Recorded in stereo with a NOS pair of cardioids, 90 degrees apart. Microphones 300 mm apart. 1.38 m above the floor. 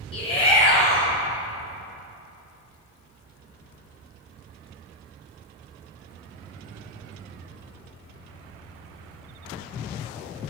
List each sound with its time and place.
0.1 s a shout: 20° left, 1.5 m